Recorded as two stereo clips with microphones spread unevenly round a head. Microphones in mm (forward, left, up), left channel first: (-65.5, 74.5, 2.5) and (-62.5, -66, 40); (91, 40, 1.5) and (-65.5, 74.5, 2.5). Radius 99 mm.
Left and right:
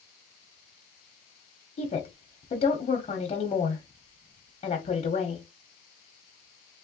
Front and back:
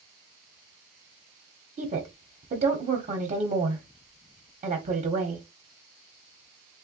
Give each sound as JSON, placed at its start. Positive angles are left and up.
{"t": 1.8, "sound": "a woman speaking", "azimuth_deg": 125, "distance_m": 1.3}